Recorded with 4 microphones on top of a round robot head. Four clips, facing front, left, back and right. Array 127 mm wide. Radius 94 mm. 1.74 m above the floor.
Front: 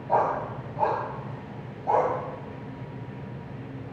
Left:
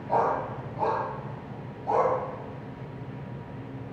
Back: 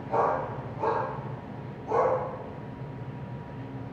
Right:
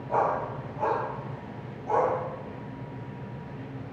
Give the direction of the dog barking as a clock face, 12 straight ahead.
11 o'clock.